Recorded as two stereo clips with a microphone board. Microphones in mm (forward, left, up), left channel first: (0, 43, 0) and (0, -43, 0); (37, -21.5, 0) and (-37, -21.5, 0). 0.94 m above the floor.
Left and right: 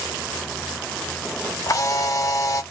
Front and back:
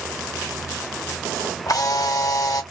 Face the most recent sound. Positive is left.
turn(degrees=40)